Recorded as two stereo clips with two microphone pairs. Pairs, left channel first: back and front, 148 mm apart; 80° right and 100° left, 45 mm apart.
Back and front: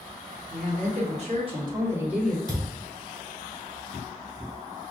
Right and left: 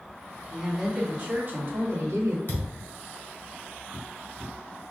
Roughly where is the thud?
Behind right.